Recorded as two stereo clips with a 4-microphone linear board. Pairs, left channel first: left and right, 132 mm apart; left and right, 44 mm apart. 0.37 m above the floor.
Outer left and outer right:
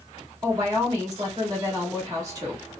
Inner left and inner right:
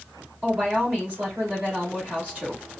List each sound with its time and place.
0.4 s a woman speaking: 30° right (ahead or behind), 1.5 m